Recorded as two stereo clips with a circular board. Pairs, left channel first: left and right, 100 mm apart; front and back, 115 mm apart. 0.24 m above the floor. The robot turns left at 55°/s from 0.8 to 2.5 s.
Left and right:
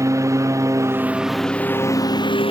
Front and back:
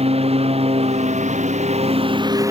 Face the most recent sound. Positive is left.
turn(degrees=115)